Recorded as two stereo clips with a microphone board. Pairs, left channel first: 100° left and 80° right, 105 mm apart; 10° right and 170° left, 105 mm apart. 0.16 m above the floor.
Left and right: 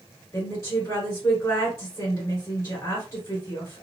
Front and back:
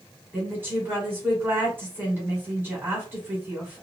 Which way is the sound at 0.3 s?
120° left.